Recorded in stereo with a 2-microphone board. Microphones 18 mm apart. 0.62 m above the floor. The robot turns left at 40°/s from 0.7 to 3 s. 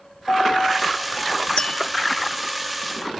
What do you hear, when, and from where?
0.3 s a piano: 55° left, 4.5 m; by 1.5 s 25° left, 4.5 m
1.6 s tapping: 50° left (ahead or behind), 1.1 m